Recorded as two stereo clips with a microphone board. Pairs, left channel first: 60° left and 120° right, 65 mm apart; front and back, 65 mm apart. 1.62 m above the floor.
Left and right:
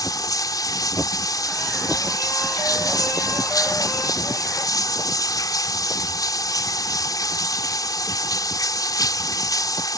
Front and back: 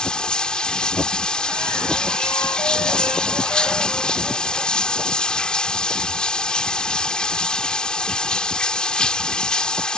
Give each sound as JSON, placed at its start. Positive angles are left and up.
{"t": 0.0, "sound": "running water", "azimuth_deg": 75}